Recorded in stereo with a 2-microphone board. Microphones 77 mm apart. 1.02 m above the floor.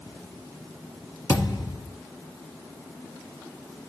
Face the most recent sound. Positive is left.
turn(degrees=40)  # may be behind; listen again after turning